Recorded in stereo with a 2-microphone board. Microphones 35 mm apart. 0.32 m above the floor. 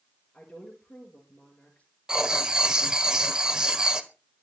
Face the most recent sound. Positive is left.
turn(degrees=-20)  # may be behind; listen again after turning